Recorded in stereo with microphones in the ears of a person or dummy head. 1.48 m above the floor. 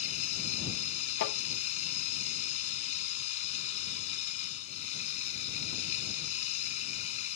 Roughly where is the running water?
Left.